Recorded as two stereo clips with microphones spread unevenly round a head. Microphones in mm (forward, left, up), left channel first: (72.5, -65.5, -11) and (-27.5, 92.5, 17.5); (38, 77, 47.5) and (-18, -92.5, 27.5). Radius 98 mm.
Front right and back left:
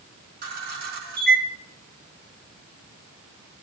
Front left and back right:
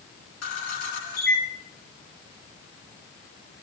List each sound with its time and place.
0.4 s a camera shutter: 90° left, 5 m